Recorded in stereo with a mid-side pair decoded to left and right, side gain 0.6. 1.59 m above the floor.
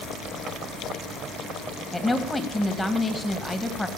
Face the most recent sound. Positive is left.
turn(degrees=15)